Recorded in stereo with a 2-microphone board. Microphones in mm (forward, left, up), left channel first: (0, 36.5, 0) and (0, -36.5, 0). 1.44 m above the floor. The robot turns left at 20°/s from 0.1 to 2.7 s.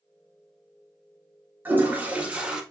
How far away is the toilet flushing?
About 0.7 m.